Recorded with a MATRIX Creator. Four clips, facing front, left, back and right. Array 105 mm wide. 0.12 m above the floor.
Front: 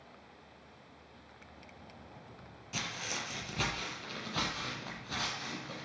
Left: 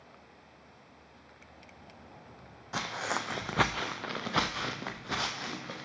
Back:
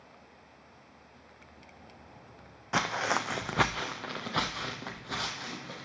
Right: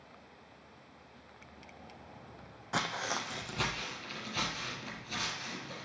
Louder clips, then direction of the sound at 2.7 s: Left 1 dB, back 12 dB; 170° right.